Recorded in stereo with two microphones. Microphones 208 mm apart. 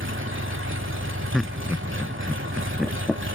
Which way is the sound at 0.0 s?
70° right (ahead or behind).